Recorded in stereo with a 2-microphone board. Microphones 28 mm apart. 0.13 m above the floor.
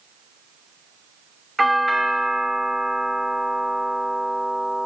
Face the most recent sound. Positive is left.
turn(degrees=5)  # may be behind; listen again after turning